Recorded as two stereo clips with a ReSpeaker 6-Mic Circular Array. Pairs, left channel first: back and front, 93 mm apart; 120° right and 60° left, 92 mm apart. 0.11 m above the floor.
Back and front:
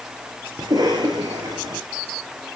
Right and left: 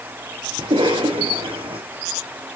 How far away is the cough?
About 6.5 m.